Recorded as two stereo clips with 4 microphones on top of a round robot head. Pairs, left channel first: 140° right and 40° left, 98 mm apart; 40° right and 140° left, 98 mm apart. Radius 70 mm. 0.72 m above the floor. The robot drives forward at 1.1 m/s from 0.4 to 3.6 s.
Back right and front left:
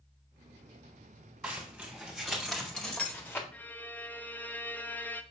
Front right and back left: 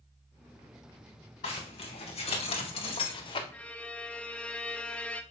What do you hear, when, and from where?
1.4 s a zipper: 30° right, 3.5 m; by 3.4 s 70° right, 1.9 m
3.5 s a violin: 85° right, 0.8 m; by 5.2 s 100° right, 0.8 m